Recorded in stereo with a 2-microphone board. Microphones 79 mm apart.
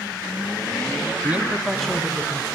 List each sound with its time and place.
1.2 s a man speaking: 25° right (ahead or behind), 1.5 m; by 2.5 s 25° left (ahead or behind), 1.9 m